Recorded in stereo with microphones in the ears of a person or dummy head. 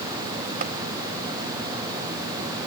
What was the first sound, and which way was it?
Tapping, 45° right (ahead or behind).